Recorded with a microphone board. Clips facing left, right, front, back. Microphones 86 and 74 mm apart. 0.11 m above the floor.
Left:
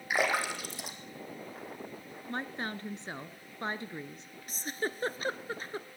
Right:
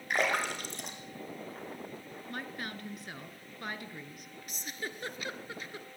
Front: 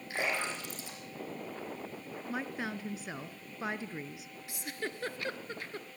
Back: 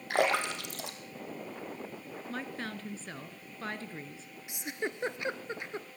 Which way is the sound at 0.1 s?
175° left.